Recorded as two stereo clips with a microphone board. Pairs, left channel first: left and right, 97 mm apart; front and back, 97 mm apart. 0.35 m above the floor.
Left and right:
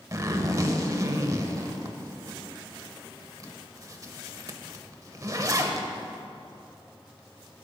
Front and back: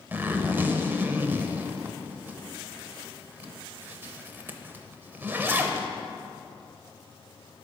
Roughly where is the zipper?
Behind right.